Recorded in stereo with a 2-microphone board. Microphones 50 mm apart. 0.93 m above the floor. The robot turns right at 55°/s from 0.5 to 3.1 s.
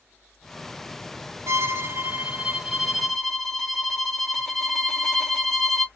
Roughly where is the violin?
Right.